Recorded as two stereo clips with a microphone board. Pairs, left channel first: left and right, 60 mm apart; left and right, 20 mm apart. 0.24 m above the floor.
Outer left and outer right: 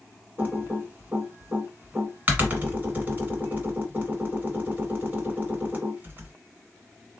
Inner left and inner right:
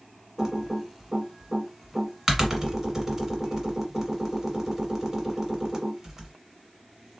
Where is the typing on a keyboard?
30° right (ahead or behind), 1.3 m.